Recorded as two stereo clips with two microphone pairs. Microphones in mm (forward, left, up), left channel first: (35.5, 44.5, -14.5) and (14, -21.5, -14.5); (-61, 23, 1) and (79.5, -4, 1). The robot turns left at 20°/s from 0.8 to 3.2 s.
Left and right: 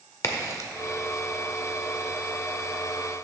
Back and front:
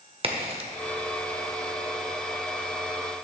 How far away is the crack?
About 1.0 m.